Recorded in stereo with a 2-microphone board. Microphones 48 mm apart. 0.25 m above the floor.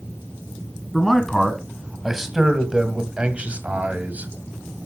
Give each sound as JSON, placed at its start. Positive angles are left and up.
{"t": 0.9, "sound": "a man speaking", "side_deg": 5, "distance_m": 1.9}